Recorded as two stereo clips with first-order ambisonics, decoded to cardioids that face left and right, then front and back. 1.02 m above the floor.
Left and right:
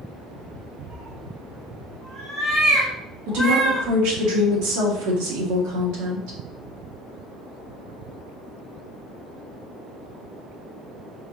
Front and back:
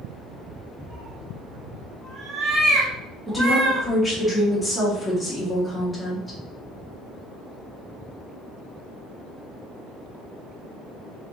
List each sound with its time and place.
0.9 s a cat meowing: 140° right, 1.5 m; by 3.9 s 125° right, 3 m
3.3 s a woman speaking: 85° right, 1.7 m